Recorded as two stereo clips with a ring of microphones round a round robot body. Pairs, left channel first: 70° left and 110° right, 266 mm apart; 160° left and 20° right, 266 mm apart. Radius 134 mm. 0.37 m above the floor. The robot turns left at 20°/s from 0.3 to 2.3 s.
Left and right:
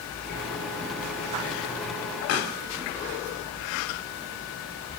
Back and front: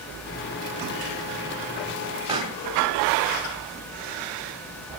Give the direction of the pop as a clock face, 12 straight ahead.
10 o'clock.